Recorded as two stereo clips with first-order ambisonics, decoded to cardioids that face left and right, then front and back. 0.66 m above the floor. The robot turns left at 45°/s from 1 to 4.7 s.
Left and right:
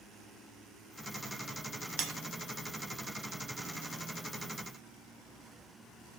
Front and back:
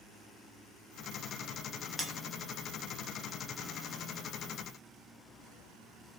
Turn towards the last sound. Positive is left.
turn(degrees=160)